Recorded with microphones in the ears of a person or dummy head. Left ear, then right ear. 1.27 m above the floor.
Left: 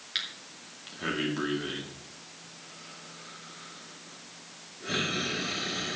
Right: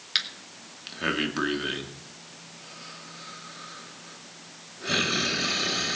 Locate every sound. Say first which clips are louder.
0.1 s breathing: right 6 dB; 40° right (ahead or behind), 2 m